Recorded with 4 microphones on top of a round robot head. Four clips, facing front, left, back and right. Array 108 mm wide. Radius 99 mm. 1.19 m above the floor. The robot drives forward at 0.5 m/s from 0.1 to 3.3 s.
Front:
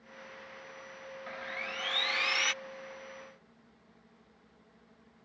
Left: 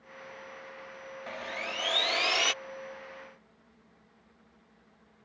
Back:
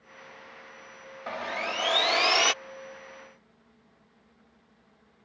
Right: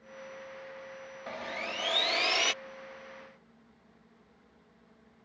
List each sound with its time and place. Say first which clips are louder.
1.3 s sawing: even, back 10 dB; 165° right; by 2.5 s 170° right